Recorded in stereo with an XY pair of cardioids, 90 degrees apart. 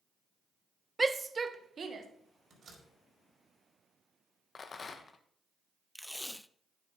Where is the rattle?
45° left, 1.2 m.